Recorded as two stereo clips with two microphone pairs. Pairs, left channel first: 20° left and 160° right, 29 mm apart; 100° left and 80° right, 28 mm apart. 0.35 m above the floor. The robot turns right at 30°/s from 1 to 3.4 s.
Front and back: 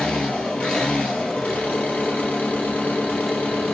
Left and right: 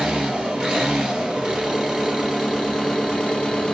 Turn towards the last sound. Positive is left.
turn(degrees=35)